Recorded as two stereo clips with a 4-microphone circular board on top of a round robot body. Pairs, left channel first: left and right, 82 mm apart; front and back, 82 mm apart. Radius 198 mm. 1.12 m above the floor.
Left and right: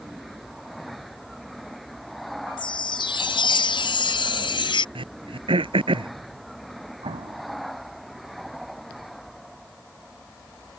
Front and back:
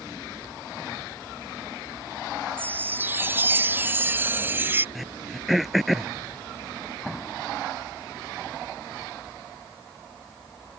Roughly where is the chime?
Behind left.